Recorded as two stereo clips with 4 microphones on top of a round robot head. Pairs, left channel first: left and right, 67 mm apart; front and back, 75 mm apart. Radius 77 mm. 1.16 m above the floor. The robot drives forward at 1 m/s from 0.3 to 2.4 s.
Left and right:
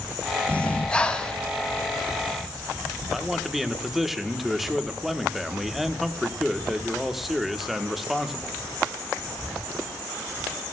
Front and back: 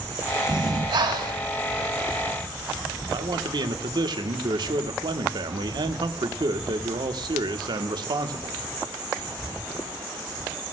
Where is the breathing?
160° left, 1.2 m; by 1.4 s 170° left, 2 m.